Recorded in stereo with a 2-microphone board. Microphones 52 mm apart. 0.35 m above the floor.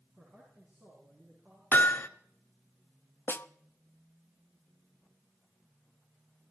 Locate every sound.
0.1 s a man speaking: 35° right (ahead or behind), 5 m; by 1.6 s 50° right (ahead or behind), 6.5 m
1.7 s hammering: 40° left (ahead or behind), 0.9 m
3.3 s a snare drum: 45° left (ahead or behind), 0.5 m